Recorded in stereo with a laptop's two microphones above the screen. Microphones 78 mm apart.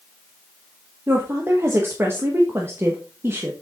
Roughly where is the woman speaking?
Right.